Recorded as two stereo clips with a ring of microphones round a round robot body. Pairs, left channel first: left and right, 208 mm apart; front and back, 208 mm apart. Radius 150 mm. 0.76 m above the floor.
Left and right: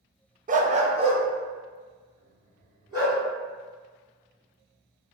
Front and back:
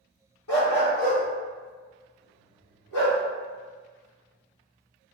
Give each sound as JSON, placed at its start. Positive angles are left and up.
{"t": 0.5, "sound": "a dog barking", "azimuth_deg": -35, "distance_m": 0.6}